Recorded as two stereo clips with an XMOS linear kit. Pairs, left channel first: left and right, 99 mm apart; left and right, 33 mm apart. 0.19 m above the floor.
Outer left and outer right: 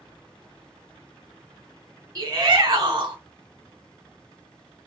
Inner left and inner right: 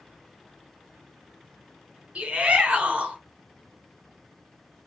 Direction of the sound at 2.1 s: 35° right (ahead or behind).